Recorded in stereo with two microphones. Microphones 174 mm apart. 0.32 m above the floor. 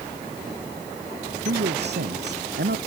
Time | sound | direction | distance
1.4 | a man speaking | 80° right | ?